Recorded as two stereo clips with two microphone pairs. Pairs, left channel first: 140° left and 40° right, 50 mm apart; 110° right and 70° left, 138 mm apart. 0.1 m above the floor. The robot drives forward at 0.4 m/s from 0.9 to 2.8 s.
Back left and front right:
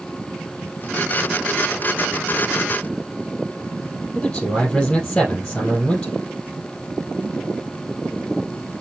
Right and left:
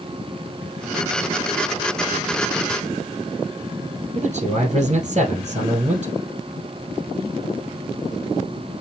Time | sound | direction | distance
4.2 | a man speaking | 85° left | 1.9 m